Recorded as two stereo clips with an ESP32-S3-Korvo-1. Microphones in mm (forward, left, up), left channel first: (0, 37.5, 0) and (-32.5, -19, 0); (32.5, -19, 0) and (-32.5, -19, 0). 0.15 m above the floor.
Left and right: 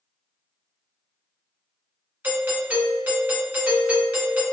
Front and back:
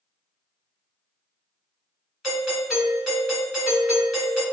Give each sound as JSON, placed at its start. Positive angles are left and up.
{"t": 2.2, "sound": "a doorbell", "azimuth_deg": -95, "distance_m": 1.6}